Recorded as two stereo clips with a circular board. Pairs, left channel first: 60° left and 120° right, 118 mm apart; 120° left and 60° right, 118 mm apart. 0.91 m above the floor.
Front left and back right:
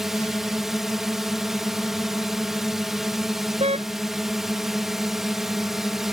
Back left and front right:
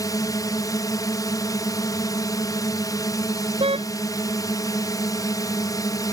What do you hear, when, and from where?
0.0 s a drone: 155° left
3.6 s a car horn: 95° right